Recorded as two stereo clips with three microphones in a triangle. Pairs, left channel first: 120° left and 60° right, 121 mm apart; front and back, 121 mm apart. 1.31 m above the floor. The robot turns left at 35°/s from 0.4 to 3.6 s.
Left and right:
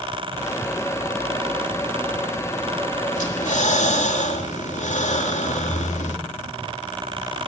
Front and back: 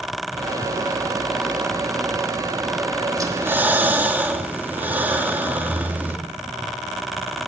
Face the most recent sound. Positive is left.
turn(degrees=105)